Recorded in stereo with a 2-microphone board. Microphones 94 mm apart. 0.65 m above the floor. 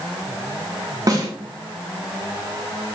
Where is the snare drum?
40° right (ahead or behind), 1.1 m.